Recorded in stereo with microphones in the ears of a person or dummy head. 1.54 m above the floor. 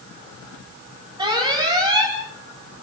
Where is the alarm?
25° right (ahead or behind), 8 m.